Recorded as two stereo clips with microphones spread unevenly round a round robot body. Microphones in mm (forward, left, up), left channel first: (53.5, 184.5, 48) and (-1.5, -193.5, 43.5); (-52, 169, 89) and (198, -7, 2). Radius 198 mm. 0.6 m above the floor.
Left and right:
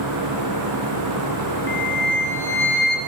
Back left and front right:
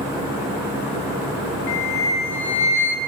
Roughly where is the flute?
Behind left.